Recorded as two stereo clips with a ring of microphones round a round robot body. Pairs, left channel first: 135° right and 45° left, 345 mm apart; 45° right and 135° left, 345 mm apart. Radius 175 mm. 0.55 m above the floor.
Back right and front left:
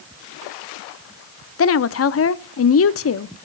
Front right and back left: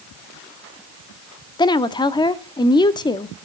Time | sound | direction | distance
1.6 | a woman speaking | 115° right | 0.7 m